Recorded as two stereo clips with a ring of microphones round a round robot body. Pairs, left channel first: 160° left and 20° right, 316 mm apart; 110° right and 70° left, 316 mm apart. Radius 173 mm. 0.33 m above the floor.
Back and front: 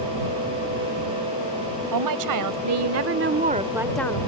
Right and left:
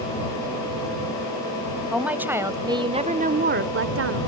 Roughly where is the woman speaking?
Ahead.